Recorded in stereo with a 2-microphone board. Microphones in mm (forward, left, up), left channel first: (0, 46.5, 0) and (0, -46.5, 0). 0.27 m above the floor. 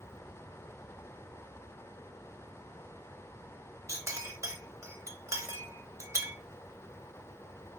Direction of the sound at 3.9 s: 30° right (ahead or behind).